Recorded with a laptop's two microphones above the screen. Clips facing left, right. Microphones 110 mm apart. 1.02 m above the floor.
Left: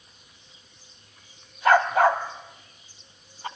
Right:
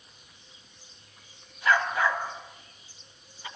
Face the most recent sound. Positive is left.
turn(degrees=45)  # may be behind; listen again after turning